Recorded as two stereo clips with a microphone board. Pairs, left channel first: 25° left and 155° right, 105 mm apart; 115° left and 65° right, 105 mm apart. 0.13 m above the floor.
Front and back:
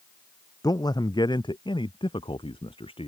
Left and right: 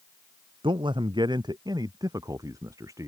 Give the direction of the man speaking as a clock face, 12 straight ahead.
1 o'clock.